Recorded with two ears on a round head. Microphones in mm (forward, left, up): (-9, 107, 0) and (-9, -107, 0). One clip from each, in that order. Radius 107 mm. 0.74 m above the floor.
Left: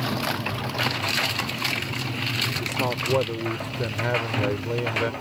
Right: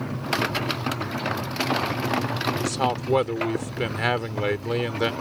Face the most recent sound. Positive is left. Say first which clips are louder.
# right 1 dB
turn(degrees=-70)  # may be behind; listen again after turning